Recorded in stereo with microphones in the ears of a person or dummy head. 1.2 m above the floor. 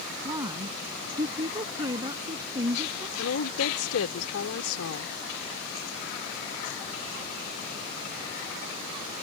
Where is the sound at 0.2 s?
25° right (ahead or behind).